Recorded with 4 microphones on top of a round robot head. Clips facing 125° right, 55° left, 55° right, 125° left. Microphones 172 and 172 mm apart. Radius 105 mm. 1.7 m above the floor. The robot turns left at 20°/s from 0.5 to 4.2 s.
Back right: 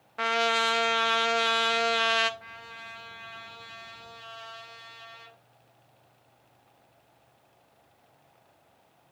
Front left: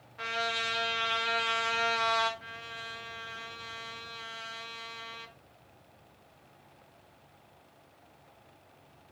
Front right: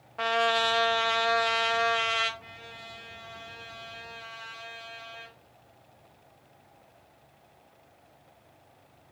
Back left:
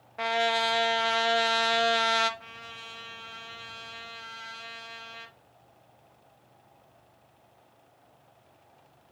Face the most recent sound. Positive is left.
turn(degrees=80)